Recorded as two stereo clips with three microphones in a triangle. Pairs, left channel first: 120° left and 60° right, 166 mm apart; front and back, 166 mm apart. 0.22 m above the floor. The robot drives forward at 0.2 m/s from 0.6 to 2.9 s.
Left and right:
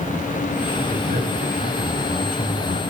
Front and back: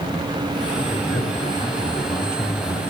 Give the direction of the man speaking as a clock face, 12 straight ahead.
2 o'clock.